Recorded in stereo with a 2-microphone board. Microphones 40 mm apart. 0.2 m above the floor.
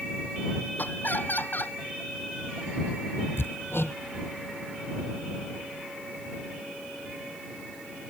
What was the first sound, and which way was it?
Laughter, 50° left (ahead or behind).